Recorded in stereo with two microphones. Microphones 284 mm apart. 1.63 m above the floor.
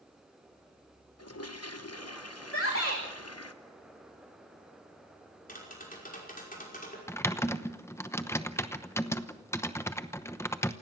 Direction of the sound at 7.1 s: 10° left (ahead or behind).